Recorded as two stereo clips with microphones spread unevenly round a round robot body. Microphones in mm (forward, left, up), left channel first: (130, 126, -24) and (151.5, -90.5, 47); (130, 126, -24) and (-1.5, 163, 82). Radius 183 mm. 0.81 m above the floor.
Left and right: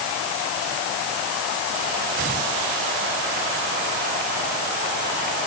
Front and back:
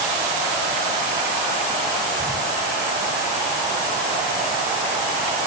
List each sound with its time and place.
Only background noise.